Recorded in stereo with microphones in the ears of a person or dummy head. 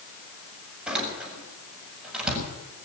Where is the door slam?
Centre (ahead or behind), 5.5 m.